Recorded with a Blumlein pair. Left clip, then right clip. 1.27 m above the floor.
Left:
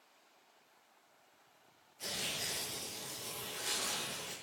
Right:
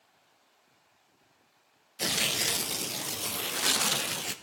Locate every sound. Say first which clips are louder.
2.0 s tearing paper: right 11 dB; 50° right, 0.6 m